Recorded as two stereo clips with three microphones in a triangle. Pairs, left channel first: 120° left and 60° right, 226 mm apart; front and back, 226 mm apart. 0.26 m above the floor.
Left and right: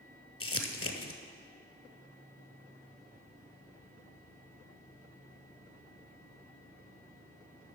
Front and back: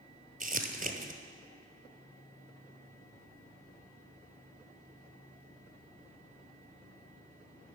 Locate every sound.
0.4 s crumpling: 125° left, 1.0 m